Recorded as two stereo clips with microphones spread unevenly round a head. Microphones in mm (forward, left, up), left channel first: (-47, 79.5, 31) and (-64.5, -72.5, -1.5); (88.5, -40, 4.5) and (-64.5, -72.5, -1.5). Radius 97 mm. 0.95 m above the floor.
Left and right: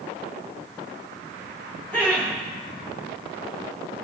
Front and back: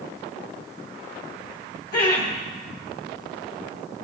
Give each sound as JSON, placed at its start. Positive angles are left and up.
{"t": 1.9, "sound": "laughter", "azimuth_deg": -5, "distance_m": 1.8}